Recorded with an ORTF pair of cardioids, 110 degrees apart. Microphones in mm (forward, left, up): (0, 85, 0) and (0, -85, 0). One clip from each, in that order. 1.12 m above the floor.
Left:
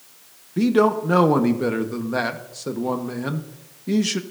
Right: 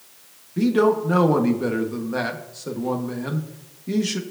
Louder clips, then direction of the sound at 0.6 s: Left 1 dB; 15° left.